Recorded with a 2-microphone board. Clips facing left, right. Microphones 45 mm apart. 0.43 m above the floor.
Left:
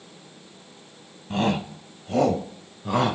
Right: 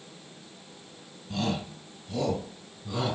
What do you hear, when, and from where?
1.3 s a shout: 40° left (ahead or behind), 2.5 m; by 3.1 s 65° left (ahead or behind), 3.5 m